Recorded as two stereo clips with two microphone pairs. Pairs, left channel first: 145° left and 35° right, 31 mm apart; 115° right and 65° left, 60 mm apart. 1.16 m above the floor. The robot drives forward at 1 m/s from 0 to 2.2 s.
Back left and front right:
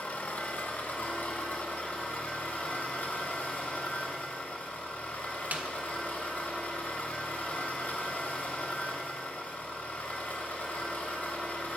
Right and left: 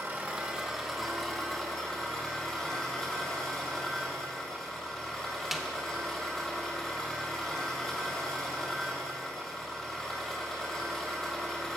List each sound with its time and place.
0.0 s an engine running: 110° left, 0.9 m; by 11.8 s 160° left, 2.5 m
5.5 s a snare drum: 20° right, 0.7 m